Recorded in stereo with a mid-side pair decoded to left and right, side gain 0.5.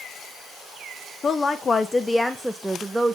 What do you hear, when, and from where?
1.2 s a woman speaking: 45° left, 1.0 m; by 3.1 s 15° right, 1.1 m